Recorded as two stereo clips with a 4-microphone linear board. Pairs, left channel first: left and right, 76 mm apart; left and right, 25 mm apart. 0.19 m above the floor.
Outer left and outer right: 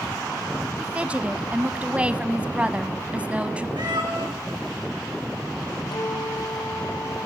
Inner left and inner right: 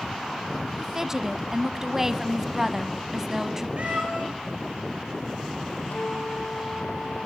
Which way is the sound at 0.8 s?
15° right (ahead or behind).